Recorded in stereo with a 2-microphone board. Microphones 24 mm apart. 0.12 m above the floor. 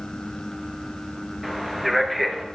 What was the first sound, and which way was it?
A man speaking, 10° left (ahead or behind).